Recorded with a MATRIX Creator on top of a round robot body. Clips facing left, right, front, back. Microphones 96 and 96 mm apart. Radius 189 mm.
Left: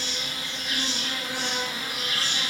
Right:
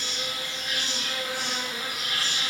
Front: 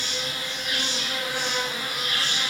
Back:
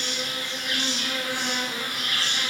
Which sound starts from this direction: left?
An insect, at 0.0 s.